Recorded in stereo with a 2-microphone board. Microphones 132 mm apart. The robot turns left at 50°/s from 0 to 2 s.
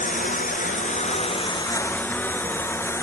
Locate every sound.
0.0 s a lawn mower: 75° left (ahead or behind); by 3.0 s 20° left (ahead or behind)